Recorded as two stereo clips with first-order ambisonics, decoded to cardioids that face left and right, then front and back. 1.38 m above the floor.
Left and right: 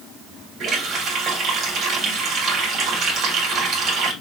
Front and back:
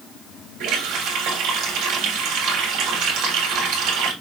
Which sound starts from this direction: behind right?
A running tap, at 0.6 s.